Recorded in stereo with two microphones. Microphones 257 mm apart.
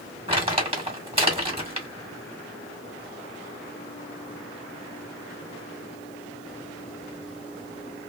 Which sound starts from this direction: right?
Crumpling, at 0.3 s.